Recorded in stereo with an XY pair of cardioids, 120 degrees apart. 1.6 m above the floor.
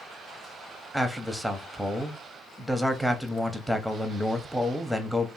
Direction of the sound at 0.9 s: 5° right.